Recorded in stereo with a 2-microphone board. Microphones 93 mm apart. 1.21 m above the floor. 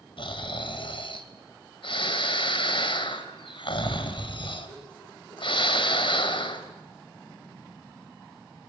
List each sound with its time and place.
0.2 s snoring: 70° left (ahead or behind), 2 m